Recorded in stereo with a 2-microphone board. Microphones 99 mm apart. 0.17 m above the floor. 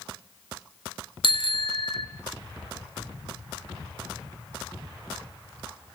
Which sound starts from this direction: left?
A bicycle bell, at 1.2 s.